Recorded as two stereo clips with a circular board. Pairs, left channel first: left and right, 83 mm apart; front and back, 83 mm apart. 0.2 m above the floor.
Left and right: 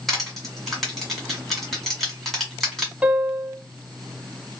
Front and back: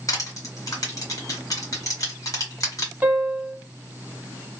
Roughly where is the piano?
Behind right.